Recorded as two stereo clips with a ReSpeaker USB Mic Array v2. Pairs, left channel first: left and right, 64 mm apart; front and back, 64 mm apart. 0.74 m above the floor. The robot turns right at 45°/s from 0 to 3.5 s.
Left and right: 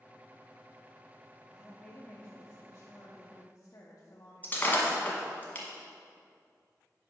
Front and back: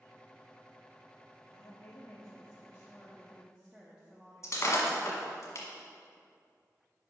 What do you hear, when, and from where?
1.5 s a woman speaking: 10° left, 0.8 m; by 5.4 s 95° left, 0.8 m
4.4 s breaking glass: 30° left, 1.2 m